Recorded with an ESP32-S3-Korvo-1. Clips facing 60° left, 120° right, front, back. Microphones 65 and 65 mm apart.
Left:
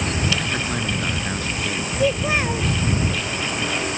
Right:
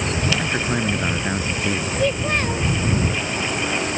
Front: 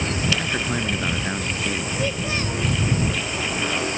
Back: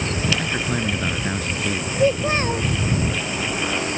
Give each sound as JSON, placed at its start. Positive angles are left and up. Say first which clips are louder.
{"t": 0.4, "sound": "a man speaking", "louder": "right 3 dB, back 1 dB", "azimuth_deg": -85}
{"t": 2.0, "sound": "a child speaking", "louder": "left 2 dB, back 10 dB", "azimuth_deg": 140}